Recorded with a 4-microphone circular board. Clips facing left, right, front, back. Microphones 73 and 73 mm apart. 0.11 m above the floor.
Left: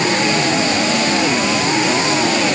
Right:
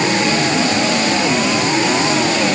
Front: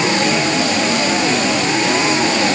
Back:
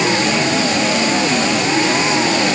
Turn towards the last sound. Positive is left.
No sound to turn to.